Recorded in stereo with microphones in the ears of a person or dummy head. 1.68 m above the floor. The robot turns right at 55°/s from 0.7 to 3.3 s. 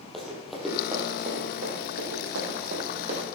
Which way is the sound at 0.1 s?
5° left (ahead or behind).